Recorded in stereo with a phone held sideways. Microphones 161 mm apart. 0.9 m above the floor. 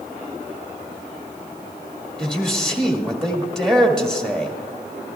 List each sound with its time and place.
2.2 s a man speaking: 5° left (ahead or behind), 1.9 m